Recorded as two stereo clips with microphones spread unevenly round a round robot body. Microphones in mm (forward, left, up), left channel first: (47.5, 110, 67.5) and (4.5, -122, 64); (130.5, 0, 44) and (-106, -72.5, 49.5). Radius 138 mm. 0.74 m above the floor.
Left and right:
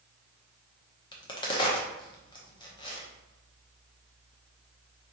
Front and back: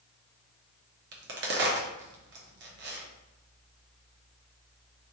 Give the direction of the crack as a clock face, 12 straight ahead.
7 o'clock.